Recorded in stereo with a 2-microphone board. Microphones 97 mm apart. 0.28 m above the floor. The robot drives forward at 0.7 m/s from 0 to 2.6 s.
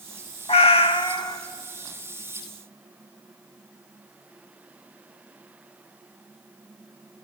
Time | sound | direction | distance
0.5 | a cat meowing | 65° left (ahead or behind) | 0.5 m